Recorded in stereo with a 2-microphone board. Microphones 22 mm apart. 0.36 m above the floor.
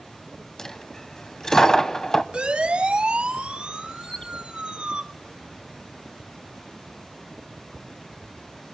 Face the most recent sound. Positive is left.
turn(degrees=35)  # may be behind; listen again after turning